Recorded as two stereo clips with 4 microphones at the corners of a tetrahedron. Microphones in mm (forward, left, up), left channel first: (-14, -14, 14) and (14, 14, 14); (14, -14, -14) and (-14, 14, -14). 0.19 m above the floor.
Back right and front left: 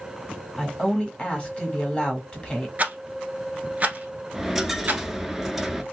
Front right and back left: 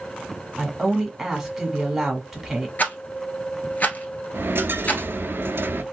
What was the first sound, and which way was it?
A woman speaking, 145° right.